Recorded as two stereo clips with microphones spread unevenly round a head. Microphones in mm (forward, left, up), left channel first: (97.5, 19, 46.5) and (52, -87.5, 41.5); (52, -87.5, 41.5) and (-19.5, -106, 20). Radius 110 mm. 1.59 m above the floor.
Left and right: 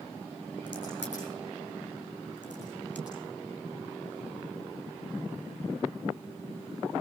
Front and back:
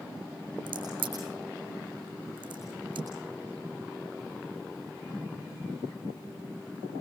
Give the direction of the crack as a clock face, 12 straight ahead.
7 o'clock.